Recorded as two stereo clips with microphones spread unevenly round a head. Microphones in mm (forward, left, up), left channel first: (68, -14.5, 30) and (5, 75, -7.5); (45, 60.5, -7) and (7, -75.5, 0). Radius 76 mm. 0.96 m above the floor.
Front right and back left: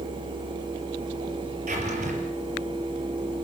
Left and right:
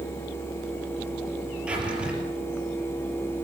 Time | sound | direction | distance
1.7 | a drawer | 170° left | 5 m